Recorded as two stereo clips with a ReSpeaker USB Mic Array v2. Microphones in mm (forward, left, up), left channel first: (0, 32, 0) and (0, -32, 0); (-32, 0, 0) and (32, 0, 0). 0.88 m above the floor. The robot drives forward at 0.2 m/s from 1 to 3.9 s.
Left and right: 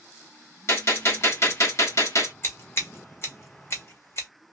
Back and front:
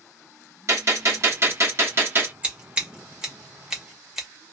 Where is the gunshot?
45° left, 1.0 m; by 2.3 s 55° left, 0.9 m.